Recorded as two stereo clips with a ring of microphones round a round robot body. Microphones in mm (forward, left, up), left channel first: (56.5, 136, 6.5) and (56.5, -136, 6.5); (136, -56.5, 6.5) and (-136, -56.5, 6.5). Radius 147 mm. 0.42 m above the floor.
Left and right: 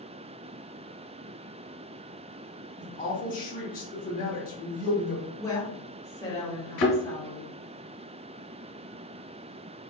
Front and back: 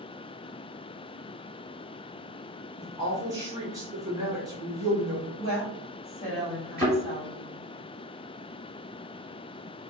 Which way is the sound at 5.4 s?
30° left.